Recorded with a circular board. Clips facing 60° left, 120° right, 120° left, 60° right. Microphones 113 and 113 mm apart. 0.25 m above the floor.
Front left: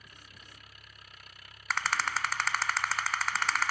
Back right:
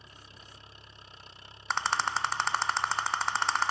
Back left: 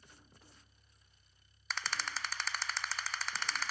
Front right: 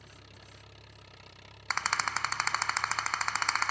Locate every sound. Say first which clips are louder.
0.0 s an engine running: back right 2 dB, front right 8 dB; 55° right
1.7 s a rattle: back right 2 dB, front right 8 dB; 60° right